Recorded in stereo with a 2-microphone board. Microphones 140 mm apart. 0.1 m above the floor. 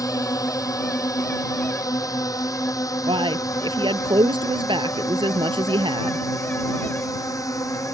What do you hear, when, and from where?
0.0 s a drone: 25° left (ahead or behind)
3.1 s a man speaking: 35° right (ahead or behind)